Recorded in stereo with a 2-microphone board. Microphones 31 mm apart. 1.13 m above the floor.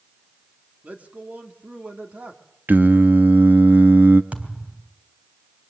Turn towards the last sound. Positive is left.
turn(degrees=-50)  # may be behind; listen again after turning